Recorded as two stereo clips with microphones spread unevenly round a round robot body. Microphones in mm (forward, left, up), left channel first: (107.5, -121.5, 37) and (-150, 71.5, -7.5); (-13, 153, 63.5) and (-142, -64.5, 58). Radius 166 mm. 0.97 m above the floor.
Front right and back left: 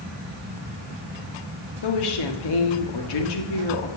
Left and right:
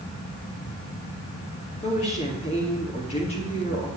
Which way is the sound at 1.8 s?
10° right.